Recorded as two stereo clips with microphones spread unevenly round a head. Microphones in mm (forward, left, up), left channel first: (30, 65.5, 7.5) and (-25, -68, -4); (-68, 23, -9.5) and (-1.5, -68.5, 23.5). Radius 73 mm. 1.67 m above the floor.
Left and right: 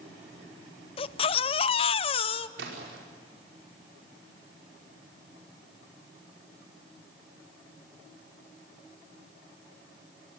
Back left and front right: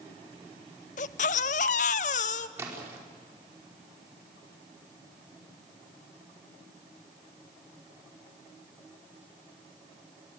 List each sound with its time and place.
1.0 s a baby crying: 100° left, 0.6 m
2.6 s a splash: 120° right, 5 m